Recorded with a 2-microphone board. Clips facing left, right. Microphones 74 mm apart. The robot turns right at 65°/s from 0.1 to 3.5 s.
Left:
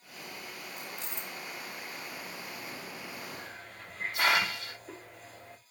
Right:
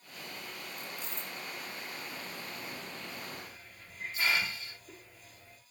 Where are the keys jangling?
90° left, 1.6 m; by 1.3 s 125° left, 1.6 m.